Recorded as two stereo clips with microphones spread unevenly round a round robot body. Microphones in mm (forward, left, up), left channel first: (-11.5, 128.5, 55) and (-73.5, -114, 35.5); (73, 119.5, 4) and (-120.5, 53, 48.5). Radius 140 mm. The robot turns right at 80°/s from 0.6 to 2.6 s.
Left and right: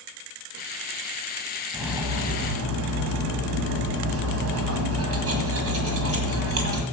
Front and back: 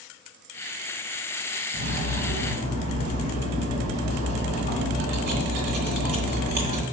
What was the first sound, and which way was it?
Cutlery clinking, 160° left.